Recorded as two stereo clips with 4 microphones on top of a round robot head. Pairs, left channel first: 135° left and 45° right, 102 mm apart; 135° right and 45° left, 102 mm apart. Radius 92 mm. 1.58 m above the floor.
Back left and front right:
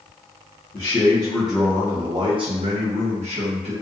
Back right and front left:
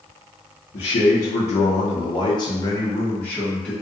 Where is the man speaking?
160° right, 0.7 m; by 3.7 s 50° right, 1.1 m.